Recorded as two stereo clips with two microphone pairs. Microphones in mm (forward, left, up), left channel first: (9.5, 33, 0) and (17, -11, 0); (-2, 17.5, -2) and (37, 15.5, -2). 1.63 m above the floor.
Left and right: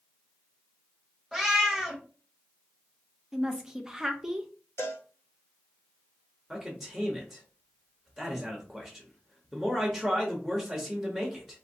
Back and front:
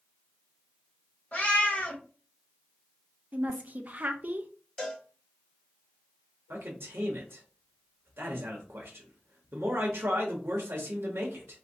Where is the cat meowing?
170° right, 1.1 m.